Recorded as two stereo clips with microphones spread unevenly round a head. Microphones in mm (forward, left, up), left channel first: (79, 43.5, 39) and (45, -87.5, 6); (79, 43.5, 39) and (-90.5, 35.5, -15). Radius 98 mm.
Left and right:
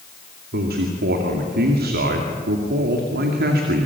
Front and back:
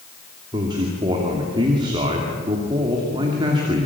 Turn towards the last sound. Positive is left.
turn(degrees=-105)